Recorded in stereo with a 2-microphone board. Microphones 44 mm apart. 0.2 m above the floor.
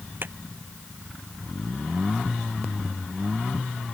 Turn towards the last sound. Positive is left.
turn(degrees=-50)  # may be behind; listen again after turning